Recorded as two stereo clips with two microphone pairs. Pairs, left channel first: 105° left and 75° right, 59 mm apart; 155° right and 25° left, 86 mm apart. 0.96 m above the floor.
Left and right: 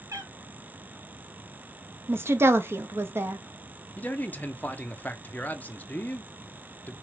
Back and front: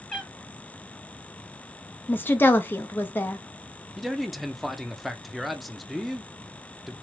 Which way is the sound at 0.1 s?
70° right.